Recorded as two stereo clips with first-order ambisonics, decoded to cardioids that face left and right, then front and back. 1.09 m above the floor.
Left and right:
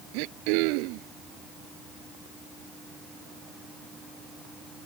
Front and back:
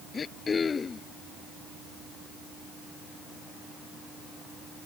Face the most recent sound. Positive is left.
turn(degrees=-75)